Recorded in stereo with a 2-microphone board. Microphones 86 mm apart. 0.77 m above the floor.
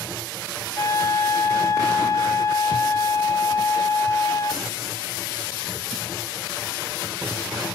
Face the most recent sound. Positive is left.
turn(degrees=35)  # may be behind; listen again after turning